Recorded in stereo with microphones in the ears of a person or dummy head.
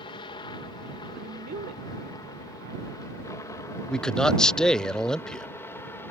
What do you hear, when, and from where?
0.0 s a helicopter: 25° left (ahead or behind); by 6.1 s 10° left (ahead or behind)
1.1 s a woman speaking: 50° right (ahead or behind)
3.9 s a man speaking: 5° left (ahead or behind)